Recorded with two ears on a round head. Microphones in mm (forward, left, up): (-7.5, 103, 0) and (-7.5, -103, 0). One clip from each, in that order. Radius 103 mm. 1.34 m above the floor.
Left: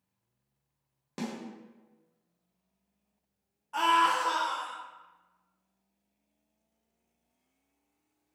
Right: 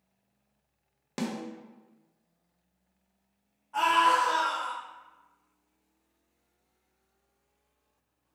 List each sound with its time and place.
1.2 s a snare drum: 15° right (ahead or behind), 0.5 m
3.7 s a scream: 40° left (ahead or behind), 0.5 m